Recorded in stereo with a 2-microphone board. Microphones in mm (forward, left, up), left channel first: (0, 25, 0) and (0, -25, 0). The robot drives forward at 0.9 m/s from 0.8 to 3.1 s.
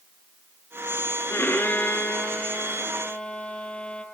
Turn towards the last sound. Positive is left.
turn(degrees=20)  # may be behind; listen again after turning